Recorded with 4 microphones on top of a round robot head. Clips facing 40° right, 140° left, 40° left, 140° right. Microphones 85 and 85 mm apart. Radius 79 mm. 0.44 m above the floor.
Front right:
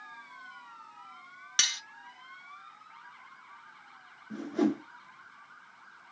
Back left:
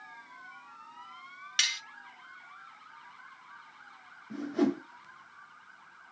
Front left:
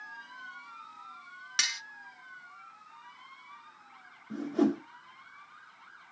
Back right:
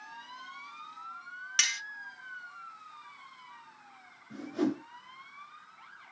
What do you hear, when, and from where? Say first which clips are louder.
1.6 s cutlery clinking: even, back right 1 dB; 30° right, 0.6 m
4.3 s a whoosh: even, front left 4 dB; 55° left, 1.7 m